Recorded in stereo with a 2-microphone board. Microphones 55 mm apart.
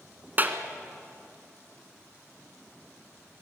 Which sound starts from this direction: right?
A clap, at 0.4 s.